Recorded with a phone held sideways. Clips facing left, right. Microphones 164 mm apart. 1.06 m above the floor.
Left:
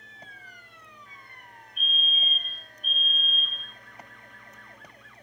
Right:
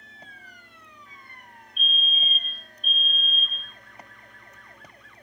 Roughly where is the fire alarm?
Right.